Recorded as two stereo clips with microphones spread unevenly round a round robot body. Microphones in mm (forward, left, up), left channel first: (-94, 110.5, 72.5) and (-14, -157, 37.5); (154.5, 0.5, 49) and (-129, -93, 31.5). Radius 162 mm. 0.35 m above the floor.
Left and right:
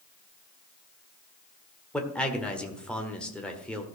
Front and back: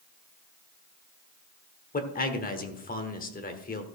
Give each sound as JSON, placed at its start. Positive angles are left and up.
{"t": 1.9, "sound": "a man speaking", "azimuth_deg": 10, "distance_m": 1.4}